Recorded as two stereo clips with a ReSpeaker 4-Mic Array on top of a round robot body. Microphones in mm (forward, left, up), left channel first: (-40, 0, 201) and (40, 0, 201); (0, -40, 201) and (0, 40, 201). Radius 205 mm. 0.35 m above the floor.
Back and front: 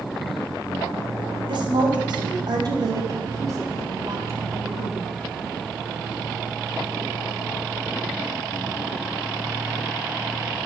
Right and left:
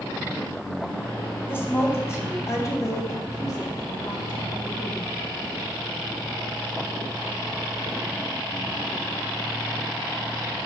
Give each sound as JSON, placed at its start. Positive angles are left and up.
{"t": 1.5, "sound": "a woman speaking", "azimuth_deg": -25, "distance_m": 3.5}